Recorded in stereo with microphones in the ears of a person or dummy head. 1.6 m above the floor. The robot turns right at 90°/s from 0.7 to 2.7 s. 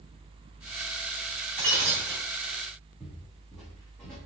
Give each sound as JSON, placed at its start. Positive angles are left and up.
{"t": 1.6, "sound": "breaking glass", "azimuth_deg": -140, "distance_m": 3.0}
{"t": 3.0, "sound": "footsteps", "side_deg": 0, "distance_m": 5.0}